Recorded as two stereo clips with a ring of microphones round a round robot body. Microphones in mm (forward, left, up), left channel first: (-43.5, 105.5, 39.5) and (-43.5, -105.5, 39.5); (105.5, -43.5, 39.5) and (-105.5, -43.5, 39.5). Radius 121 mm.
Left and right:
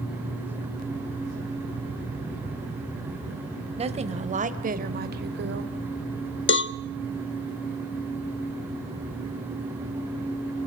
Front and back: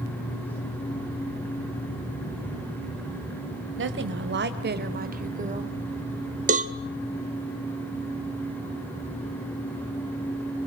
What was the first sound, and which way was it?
A woman speaking, 150° right.